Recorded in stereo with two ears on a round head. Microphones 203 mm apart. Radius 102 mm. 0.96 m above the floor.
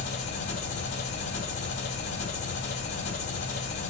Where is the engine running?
50° left (ahead or behind), 2 m.